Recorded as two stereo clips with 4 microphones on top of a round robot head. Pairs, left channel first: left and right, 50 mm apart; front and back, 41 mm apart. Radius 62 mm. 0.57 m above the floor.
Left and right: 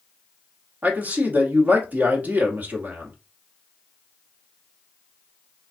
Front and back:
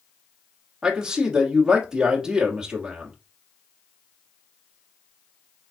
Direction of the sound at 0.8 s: 120° right.